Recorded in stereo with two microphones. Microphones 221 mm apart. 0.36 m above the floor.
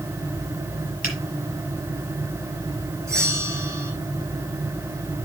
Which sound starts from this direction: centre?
A bell, at 3.1 s.